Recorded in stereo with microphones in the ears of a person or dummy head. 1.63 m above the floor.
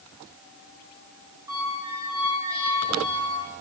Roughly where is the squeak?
Centre.